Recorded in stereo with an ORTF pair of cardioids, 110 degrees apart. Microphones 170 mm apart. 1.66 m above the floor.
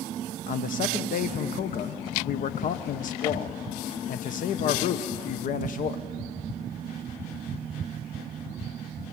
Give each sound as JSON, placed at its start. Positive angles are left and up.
{"t": 0.5, "sound": "a man speaking", "azimuth_deg": 50, "distance_m": 1.1}